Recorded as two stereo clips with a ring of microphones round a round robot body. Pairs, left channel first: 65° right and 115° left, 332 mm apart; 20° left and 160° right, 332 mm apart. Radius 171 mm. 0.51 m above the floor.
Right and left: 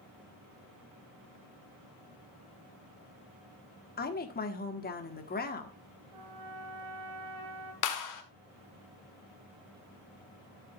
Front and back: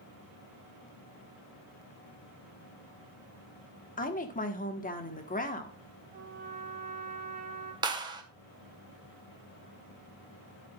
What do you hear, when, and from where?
4.0 s a woman speaking: 25° right, 1.3 m
6.1 s a trumpet: 140° left, 2 m
7.8 s a clap: 80° right, 1.5 m